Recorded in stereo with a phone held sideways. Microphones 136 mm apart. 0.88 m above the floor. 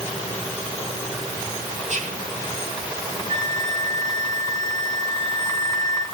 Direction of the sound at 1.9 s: 60° right (ahead or behind).